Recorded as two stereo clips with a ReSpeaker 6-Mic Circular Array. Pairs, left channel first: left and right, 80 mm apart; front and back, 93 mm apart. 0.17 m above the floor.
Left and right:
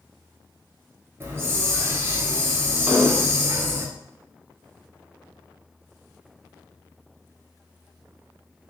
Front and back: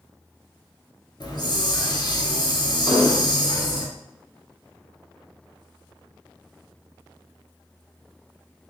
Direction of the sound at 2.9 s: 25° right.